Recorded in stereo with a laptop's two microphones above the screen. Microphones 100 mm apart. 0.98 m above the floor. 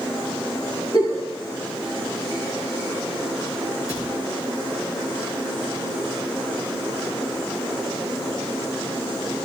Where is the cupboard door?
35° left (ahead or behind), 8.5 m.